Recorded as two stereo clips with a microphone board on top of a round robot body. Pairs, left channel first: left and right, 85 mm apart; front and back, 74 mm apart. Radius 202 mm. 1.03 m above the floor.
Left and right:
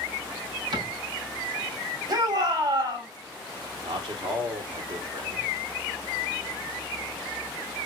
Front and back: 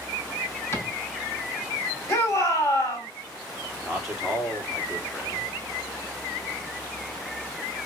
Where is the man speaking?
90° right, 2.5 m.